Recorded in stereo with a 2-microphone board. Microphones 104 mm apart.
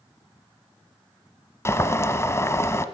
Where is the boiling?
25° left (ahead or behind), 1.0 m.